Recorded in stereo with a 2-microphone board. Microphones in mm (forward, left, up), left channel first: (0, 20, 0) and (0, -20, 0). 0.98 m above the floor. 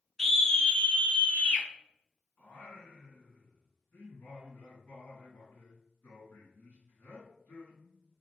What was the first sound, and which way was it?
A scream, 10° left (ahead or behind).